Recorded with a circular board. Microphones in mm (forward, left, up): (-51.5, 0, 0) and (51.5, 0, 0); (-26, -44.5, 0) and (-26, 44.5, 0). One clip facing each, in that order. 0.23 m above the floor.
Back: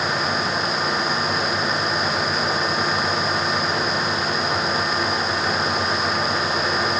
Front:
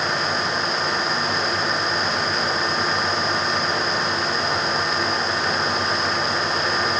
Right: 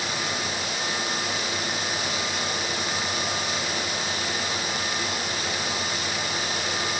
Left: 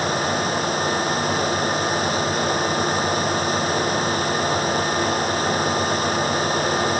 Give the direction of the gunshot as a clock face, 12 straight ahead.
No gunshot in this recording.